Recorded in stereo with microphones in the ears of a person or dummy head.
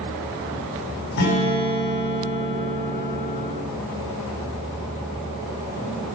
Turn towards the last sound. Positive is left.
turn(degrees=60)  # may be behind; listen again after turning